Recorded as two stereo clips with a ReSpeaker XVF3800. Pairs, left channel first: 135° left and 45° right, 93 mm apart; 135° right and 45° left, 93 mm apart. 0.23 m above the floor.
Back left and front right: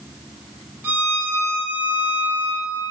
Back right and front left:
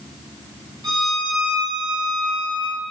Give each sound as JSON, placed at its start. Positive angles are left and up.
{"t": 0.8, "sound": "a violin", "azimuth_deg": 15, "distance_m": 0.5}